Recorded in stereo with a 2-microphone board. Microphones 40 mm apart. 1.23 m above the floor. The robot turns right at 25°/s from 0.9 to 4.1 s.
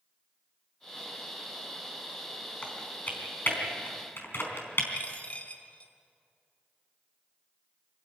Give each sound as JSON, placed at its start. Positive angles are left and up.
{"t": 2.6, "sound": "typing on a keyboard", "side_deg": 35, "distance_m": 4.0}
{"t": 4.9, "sound": "a dropped coin", "side_deg": 40, "distance_m": 1.9}